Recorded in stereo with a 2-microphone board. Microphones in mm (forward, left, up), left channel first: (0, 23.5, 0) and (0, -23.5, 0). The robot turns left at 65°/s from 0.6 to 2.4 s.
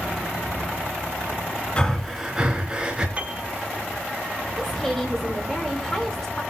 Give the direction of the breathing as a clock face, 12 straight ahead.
11 o'clock.